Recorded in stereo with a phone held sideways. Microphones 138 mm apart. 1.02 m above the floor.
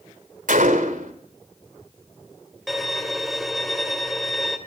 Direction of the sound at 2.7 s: Centre (ahead or behind).